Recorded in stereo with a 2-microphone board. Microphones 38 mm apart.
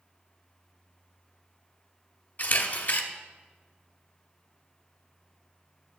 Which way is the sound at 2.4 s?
45° left (ahead or behind).